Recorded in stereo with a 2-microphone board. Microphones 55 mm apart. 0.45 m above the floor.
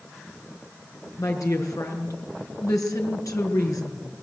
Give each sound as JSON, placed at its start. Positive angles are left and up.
{"t": 1.2, "sound": "a woman speaking", "side_deg": 80, "distance_m": 6.0}